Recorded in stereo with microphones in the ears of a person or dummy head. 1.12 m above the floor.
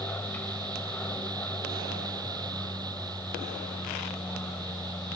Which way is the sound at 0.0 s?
15° left (ahead or behind).